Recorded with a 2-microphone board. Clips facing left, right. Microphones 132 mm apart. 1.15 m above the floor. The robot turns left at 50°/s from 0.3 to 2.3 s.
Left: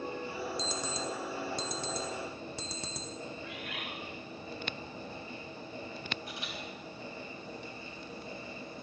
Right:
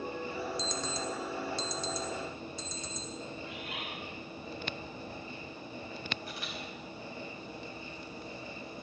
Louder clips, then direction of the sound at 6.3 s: Even; 20° left (ahead or behind).